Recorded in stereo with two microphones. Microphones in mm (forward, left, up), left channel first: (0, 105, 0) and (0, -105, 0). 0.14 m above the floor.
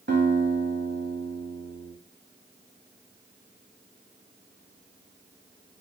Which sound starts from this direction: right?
A guitar, at 0.1 s.